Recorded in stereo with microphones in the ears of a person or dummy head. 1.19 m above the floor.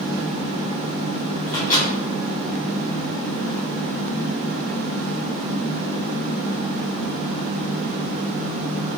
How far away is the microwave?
About 1.0 m.